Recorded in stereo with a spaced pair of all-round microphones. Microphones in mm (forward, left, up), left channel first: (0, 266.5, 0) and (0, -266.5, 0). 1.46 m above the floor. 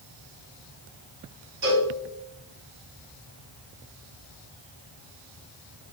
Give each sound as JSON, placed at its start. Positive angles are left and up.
{"t": 1.6, "sound": "a cowbell", "side_deg": -35, "distance_m": 1.4}